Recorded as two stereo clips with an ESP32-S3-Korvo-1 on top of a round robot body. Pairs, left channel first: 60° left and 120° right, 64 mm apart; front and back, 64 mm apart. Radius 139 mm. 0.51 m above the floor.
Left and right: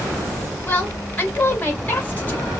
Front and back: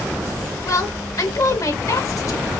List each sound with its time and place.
0.7 s a woman speaking: straight ahead, 1.9 m